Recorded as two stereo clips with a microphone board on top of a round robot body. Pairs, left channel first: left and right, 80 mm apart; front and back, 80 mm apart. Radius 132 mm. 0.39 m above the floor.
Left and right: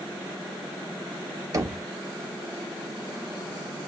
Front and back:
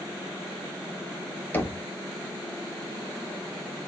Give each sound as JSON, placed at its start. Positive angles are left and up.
{"t": 1.5, "sound": "knocking", "azimuth_deg": -60, "distance_m": 1.2}